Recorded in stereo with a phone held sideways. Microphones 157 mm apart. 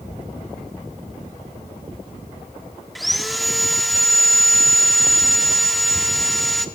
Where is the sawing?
Centre (ahead or behind), 1.3 m.